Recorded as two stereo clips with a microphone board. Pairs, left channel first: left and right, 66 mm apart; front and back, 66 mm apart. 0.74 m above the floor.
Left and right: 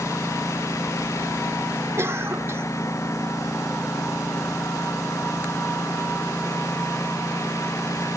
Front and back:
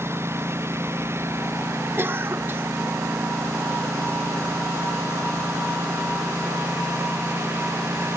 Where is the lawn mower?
130° left.